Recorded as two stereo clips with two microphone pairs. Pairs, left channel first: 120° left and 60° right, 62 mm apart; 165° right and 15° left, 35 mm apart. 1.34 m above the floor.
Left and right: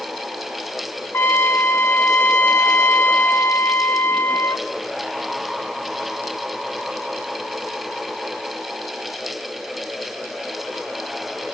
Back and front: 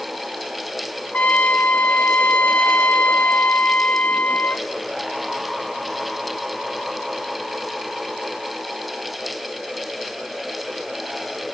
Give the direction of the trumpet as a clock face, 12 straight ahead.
6 o'clock.